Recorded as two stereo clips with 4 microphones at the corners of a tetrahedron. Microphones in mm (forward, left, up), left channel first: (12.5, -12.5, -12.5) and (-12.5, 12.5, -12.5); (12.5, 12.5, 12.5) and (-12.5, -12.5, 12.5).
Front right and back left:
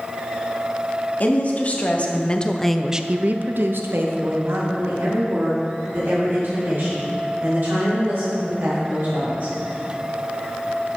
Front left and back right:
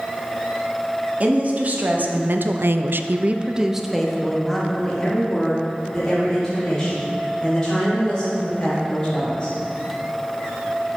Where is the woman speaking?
90° right, 1.4 m; by 9.5 s 115° left, 5 m.